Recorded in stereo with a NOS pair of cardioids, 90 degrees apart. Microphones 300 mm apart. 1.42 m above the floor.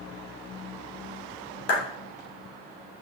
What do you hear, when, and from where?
1.7 s a clap: 50° left, 3 m